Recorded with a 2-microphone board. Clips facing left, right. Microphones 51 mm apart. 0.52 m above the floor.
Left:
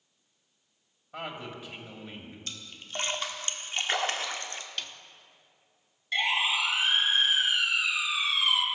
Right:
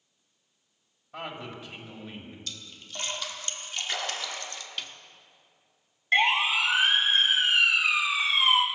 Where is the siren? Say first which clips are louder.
Right 4 dB; 45° right (ahead or behind), 3.5 m; by 8.7 s 35° right (ahead or behind), 1.3 m.